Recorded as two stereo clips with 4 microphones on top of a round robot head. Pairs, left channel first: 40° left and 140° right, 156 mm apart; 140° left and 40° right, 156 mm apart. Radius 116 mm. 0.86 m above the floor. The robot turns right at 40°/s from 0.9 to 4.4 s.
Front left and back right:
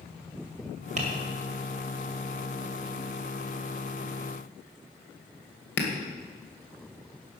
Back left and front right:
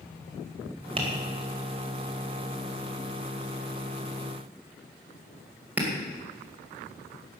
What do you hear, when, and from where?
1.0 s tapping: 95° right, 2.5 m; by 5.9 s 40° left, 2.5 m